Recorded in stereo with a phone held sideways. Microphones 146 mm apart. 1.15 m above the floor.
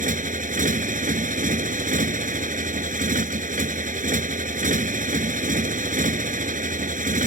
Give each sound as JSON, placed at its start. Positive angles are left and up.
{"t": 0.0, "sound": "a motorcycle", "side_deg": -65}